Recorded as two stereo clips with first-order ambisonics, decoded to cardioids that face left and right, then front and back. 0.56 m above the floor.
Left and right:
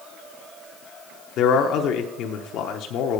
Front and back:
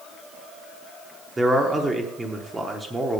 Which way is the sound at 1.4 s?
105° left.